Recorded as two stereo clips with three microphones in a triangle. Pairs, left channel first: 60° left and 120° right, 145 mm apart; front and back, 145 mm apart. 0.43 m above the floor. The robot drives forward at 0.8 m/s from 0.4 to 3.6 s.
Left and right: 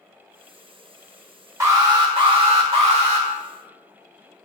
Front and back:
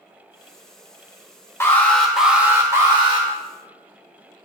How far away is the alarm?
About 1.2 m.